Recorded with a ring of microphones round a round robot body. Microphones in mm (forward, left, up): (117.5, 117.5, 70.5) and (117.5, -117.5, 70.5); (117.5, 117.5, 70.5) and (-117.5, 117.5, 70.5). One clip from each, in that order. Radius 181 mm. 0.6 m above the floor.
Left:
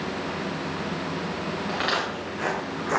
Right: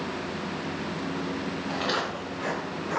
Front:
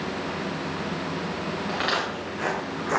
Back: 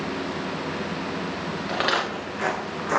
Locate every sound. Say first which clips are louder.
1.7 s footsteps: left 2 dB, back 3 dB; 130° left, 3 m; by 3.0 s 100° left, 1.8 m